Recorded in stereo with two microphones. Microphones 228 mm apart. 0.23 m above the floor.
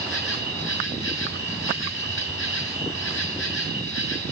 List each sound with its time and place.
0.0 s an insect: 65° left (ahead or behind), 4 m